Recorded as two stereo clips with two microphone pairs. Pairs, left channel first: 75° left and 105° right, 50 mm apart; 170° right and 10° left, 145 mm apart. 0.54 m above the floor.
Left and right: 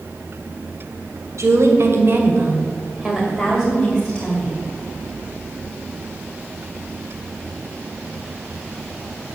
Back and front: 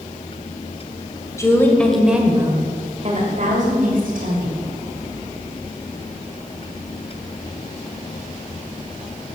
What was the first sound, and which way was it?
A woman speaking, 100° right.